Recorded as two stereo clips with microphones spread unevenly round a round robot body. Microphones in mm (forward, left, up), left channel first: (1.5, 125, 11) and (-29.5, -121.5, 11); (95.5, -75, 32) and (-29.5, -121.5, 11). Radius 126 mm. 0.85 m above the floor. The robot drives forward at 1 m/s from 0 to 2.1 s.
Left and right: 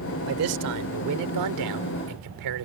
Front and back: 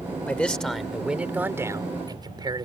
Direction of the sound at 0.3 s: 60° right.